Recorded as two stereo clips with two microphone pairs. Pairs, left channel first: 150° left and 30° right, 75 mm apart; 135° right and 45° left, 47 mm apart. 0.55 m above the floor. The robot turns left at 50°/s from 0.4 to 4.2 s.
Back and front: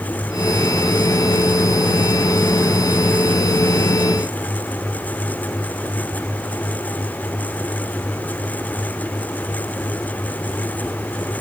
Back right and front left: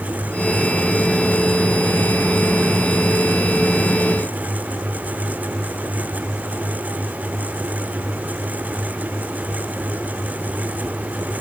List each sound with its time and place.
Only background noise.